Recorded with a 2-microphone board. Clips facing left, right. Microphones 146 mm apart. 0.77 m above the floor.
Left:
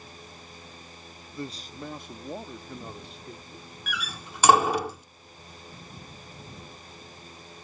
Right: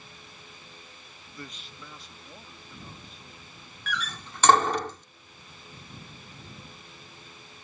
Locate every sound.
1.3 s a man speaking: 20° left (ahead or behind); by 3.8 s 80° left
3.9 s a door slam: 10° left (ahead or behind)